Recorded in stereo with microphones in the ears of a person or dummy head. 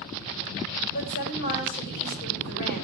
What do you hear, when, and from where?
0.9 s a woman speaking: 55° left (ahead or behind), 7.5 m